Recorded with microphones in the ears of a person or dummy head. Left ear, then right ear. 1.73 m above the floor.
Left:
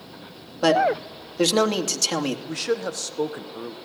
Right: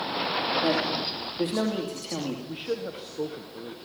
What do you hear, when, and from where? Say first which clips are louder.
0.6 s a man speaking: left 6 dB; 70° left (ahead or behind), 2.5 m
2.5 s a man speaking: left 6 dB; 55° left (ahead or behind), 1.4 m